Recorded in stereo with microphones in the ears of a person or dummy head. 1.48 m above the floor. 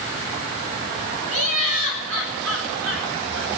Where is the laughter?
85° right, 9.5 m.